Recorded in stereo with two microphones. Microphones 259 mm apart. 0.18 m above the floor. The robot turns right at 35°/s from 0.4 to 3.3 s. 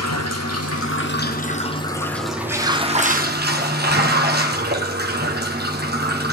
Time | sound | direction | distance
0.0 | running water | 115° left | 2 m